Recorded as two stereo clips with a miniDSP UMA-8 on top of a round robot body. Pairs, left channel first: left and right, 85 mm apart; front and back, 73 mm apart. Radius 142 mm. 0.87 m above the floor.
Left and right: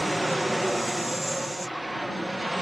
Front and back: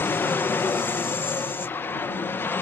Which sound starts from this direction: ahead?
An aircraft, at 0.0 s.